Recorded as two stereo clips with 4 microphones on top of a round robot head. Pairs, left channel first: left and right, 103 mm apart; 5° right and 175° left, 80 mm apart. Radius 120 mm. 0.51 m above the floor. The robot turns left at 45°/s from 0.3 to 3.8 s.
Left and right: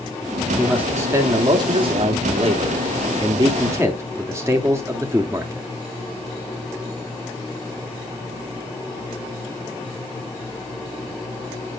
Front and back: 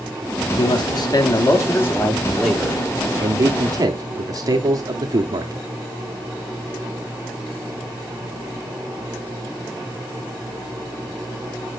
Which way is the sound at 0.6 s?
5° right.